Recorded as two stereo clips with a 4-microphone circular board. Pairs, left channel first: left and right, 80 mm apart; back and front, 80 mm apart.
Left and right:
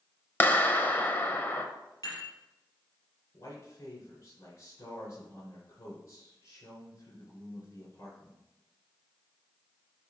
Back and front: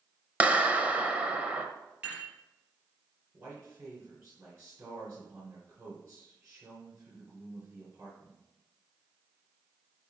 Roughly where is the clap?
Ahead left.